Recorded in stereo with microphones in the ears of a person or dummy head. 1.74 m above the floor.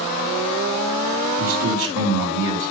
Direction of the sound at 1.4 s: 70° right (ahead or behind).